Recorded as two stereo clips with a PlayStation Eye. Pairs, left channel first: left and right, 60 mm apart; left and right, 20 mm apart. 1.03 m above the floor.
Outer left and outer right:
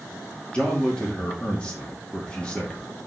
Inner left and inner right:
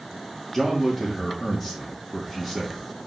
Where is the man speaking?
15° left (ahead or behind), 2.5 m.